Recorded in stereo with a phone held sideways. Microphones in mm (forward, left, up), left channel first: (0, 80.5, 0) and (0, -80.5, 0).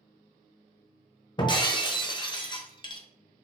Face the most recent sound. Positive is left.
turn(degrees=30)  # may be behind; listen again after turning